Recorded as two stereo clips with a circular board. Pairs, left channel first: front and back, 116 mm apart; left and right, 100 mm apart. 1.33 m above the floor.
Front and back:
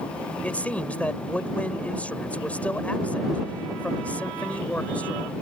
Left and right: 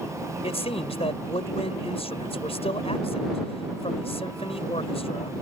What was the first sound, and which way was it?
A man speaking, 75° left.